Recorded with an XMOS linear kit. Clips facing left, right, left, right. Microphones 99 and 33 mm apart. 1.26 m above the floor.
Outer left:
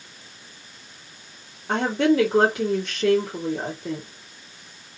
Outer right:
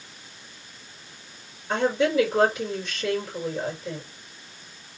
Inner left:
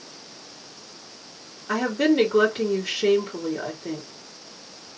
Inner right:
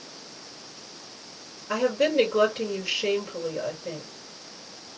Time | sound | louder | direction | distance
1.7 | a woman speaking | outer left 3 dB, inner left 2 dB | 80° left | 2.5 m